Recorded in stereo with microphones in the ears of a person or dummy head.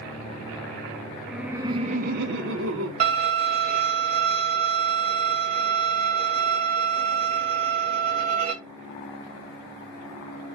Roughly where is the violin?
Right.